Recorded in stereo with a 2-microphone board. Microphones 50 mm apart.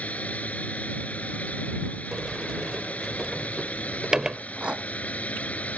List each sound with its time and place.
0.0 s a drone: 30° left (ahead or behind)
2.1 s a sliding door: 15° right (ahead or behind)
4.4 s a rattle: 25° right (ahead or behind)